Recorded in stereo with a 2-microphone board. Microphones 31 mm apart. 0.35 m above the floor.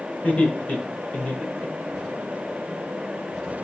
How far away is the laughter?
About 4.5 m.